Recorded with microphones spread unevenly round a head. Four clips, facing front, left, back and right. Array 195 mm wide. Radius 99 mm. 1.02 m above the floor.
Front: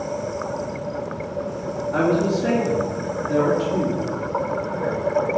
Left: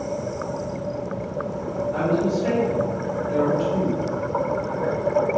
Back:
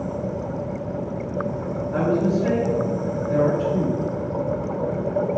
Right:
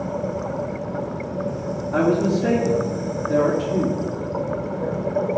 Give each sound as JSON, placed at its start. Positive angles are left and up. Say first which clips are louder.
{"t": 1.9, "sound": "a woman speaking", "louder": "right 4 dB, front 1 dB", "azimuth_deg": -70, "distance_m": 3.0}